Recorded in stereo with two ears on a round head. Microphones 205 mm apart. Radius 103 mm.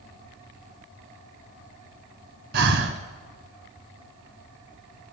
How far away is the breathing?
About 1.6 m.